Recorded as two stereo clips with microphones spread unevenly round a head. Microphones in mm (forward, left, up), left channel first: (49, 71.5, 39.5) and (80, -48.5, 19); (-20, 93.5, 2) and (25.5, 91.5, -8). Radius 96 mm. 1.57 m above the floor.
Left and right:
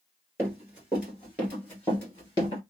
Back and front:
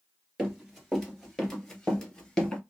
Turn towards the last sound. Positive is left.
turn(degrees=135)